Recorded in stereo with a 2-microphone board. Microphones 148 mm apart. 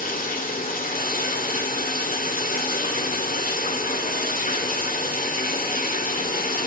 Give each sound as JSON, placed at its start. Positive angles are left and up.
{"t": 0.0, "sound": "running water", "side_deg": 70, "distance_m": 1.8}